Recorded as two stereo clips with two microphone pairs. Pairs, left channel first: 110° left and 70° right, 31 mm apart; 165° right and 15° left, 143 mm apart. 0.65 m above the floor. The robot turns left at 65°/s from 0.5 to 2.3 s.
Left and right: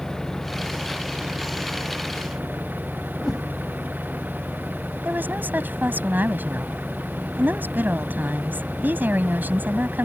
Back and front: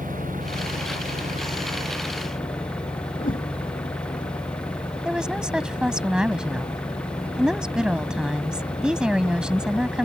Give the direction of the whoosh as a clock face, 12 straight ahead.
6 o'clock.